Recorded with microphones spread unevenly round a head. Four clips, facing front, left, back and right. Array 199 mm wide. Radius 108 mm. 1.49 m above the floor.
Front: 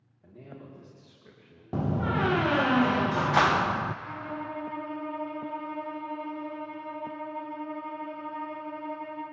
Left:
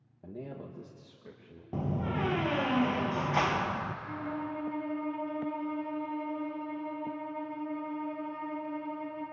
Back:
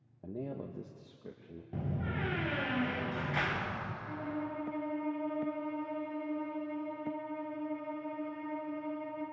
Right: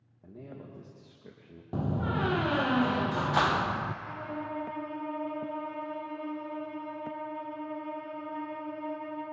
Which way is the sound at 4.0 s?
10° right.